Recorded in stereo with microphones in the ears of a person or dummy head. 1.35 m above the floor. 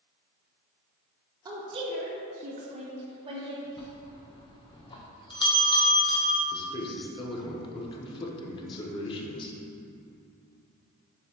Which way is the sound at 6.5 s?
25° left (ahead or behind).